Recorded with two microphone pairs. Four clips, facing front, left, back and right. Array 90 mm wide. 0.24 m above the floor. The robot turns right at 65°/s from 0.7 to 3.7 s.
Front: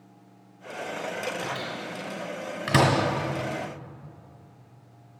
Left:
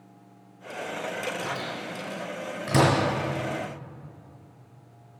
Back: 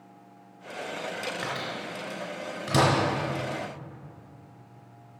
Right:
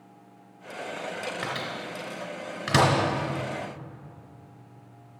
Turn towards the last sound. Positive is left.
turn(degrees=25)